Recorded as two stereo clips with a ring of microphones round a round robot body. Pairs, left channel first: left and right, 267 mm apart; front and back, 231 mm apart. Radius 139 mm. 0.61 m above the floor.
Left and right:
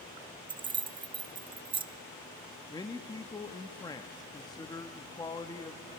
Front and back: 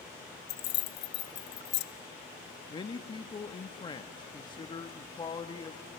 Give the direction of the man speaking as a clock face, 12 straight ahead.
11 o'clock.